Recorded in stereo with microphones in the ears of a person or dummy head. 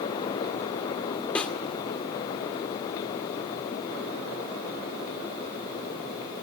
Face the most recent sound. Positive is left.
turn(degrees=5)  # may be behind; listen again after turning